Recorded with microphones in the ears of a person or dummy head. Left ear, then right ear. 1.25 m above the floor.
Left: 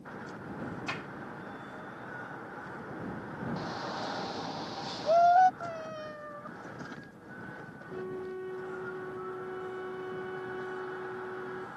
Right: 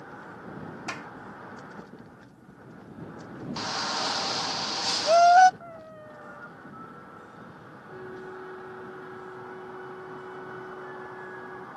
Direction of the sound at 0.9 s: 20° right (ahead or behind).